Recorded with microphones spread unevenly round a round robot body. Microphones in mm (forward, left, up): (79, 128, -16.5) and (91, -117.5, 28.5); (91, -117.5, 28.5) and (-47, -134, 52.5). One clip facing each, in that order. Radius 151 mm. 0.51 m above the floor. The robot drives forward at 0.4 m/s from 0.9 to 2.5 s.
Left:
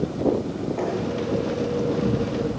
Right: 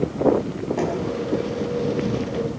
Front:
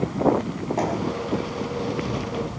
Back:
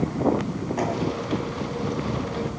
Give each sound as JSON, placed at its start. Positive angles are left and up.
{"t": 0.8, "sound": "knocking", "azimuth_deg": -50, "distance_m": 4.0}